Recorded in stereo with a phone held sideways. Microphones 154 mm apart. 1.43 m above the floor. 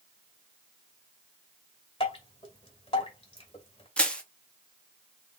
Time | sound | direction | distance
2.0 | dripping | 35° left (ahead or behind) | 1.9 m
4.0 | crushing | 5° left (ahead or behind) | 1.0 m